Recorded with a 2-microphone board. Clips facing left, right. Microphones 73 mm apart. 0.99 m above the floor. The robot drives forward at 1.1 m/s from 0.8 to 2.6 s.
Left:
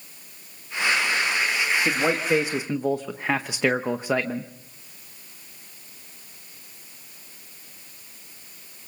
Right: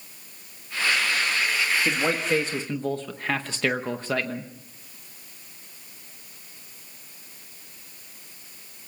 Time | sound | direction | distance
1.9 | a man speaking | 5° left (ahead or behind) | 1.6 m